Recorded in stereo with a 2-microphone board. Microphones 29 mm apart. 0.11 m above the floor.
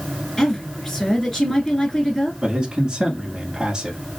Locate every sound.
0.4 s a woman speaking: 5° left (ahead or behind), 1.4 m
2.4 s a man speaking: 20° right (ahead or behind), 1.1 m